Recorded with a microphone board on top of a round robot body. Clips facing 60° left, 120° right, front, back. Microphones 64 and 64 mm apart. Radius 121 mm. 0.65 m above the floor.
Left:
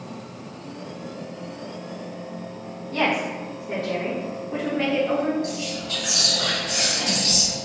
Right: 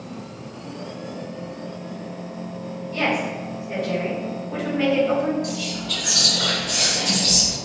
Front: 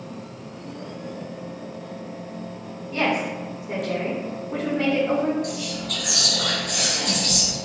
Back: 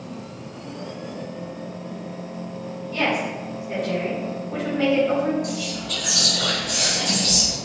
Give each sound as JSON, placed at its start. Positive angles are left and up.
{"t": 2.9, "sound": "a woman speaking", "azimuth_deg": 70, "distance_m": 1.2}
{"t": 5.4, "sound": "whispering", "azimuth_deg": 5, "distance_m": 1.2}